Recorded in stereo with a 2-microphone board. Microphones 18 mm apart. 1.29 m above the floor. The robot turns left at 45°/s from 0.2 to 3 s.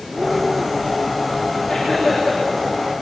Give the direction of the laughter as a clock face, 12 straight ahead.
11 o'clock.